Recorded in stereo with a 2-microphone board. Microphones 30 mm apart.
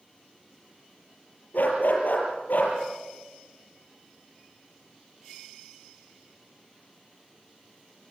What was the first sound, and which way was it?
A dog barking, 70° left (ahead or behind).